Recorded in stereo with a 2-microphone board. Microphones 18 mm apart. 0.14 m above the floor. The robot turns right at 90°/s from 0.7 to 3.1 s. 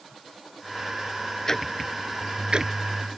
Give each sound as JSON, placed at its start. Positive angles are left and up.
{"t": 1.5, "sound": "ticking", "side_deg": 20}